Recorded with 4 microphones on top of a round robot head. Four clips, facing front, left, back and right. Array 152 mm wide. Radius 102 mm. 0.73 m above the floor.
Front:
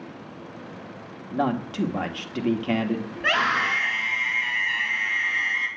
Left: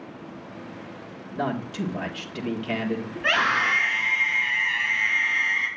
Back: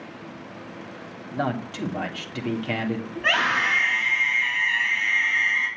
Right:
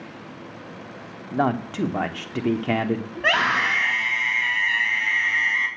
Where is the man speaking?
70° right, 1.6 m.